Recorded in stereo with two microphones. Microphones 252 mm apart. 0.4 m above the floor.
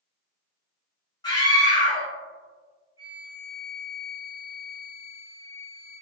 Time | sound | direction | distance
1.2 | a scream | 15° left (ahead or behind) | 1.5 m
3.0 | a flute | 20° left (ahead or behind) | 1.4 m